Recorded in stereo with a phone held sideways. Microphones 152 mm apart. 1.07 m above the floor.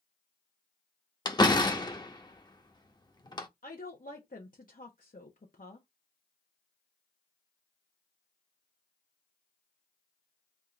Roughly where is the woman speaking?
Left.